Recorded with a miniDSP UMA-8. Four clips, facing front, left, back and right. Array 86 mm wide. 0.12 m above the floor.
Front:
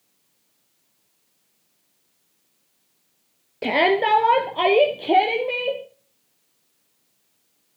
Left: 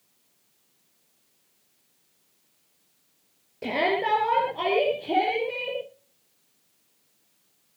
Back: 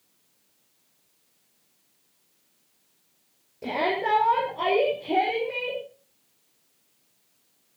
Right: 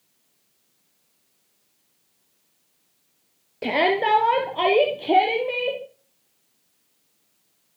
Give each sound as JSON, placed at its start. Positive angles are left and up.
{"t": 3.6, "sound": "a shout", "azimuth_deg": -30, "distance_m": 2.5}